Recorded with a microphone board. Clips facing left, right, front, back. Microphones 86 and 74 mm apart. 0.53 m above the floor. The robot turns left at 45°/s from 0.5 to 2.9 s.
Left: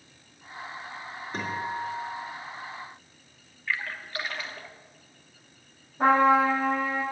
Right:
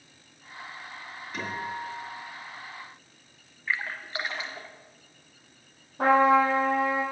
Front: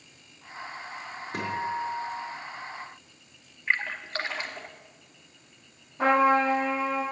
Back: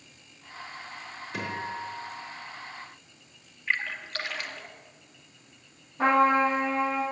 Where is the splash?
40° right, 1.1 m.